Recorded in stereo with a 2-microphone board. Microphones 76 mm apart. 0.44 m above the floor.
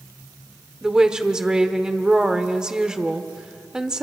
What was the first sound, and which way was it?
A woman speaking, 10° right (ahead or behind).